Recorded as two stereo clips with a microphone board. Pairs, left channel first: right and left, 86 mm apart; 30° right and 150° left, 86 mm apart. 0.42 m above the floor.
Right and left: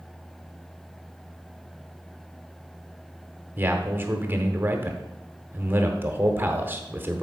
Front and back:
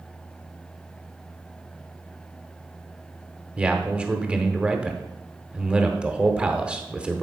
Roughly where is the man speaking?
Left.